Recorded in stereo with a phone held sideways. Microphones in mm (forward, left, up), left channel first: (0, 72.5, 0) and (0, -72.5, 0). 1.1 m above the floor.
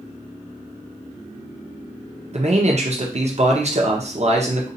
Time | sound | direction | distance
2.3 | a man speaking | 50° right (ahead or behind) | 0.9 m